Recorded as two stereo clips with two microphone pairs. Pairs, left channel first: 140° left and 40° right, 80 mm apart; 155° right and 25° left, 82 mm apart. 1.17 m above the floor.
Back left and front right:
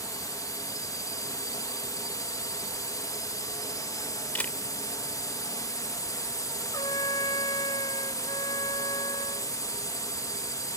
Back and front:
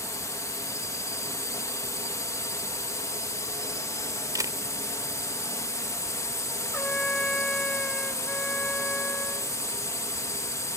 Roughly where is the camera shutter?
Left.